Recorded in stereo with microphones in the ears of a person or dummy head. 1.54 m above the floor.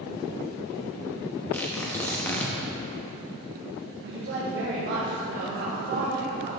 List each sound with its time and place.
1.5 s tearing paper: 10° left (ahead or behind), 0.9 m
4.0 s a woman speaking: 60° right (ahead or behind), 1.8 m